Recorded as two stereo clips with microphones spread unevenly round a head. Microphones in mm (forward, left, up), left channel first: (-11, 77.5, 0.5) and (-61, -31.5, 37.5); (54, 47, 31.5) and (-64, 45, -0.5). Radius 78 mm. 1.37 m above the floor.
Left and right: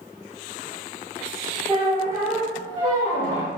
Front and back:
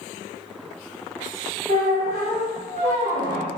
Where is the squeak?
145° right, 1.7 m.